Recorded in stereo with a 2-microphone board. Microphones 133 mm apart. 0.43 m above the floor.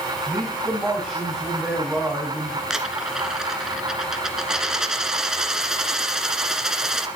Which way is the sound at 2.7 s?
5° right (ahead or behind).